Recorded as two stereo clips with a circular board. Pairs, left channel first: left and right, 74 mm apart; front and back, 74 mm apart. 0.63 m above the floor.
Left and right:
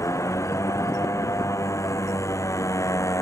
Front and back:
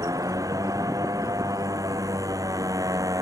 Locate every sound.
0.0 s a motorcycle: 140° left